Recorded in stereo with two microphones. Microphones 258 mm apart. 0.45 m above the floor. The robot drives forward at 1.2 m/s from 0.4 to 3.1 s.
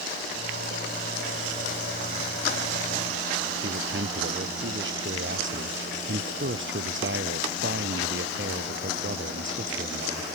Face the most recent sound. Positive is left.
turn(degrees=-50)  # may be behind; listen again after turning